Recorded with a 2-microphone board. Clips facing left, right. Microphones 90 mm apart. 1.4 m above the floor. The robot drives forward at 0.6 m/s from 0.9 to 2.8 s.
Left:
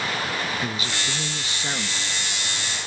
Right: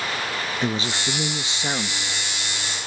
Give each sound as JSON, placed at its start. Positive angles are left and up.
{"t": 0.6, "sound": "a man speaking", "side_deg": -30}